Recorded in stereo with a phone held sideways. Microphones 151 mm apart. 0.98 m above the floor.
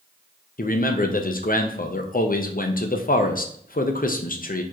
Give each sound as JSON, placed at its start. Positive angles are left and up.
{"t": 0.6, "sound": "a man speaking", "side_deg": 65, "distance_m": 0.5}